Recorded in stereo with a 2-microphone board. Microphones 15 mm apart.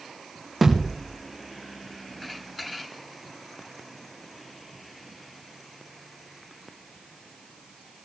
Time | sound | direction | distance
0.6 | a thud | 5° right (ahead or behind) | 6.5 m